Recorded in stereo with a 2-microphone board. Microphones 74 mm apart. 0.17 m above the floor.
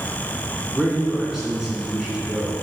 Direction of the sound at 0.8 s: 10° right (ahead or behind).